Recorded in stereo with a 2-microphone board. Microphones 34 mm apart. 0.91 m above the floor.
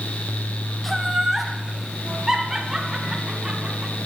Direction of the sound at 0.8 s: Centre (ahead or behind).